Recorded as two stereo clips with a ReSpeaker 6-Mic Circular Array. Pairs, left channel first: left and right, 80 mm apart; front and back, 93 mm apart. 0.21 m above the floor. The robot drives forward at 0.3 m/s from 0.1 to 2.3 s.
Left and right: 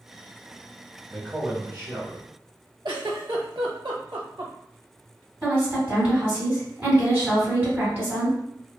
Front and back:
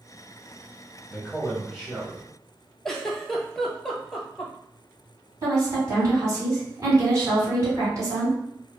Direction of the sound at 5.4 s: 145° right.